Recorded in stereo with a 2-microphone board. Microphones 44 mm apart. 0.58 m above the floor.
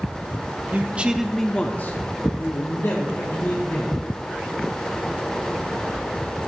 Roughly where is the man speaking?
Right.